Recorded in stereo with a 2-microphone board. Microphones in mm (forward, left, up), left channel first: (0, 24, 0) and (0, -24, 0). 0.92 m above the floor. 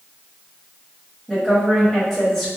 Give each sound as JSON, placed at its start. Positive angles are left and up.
{"t": 1.3, "sound": "a woman speaking", "side_deg": 0, "distance_m": 1.1}